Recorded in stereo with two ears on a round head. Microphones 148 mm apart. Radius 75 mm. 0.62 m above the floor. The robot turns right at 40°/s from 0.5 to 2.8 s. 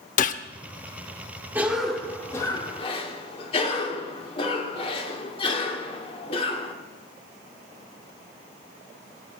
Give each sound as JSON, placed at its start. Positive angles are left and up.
{"t": 0.2, "sound": "a gunshot", "side_deg": 45, "distance_m": 0.7}
{"t": 1.6, "sound": "a cough", "azimuth_deg": -10, "distance_m": 1.7}